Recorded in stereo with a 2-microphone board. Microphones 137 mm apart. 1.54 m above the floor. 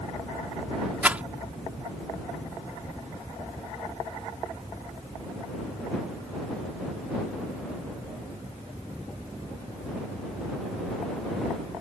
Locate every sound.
1.0 s a rattle: 10° right (ahead or behind)